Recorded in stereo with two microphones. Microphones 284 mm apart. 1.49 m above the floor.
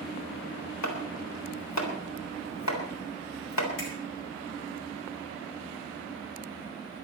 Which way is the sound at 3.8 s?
50° left (ahead or behind).